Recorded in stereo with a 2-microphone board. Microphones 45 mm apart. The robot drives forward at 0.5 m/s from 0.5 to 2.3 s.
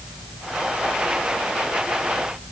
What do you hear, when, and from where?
Only background noise.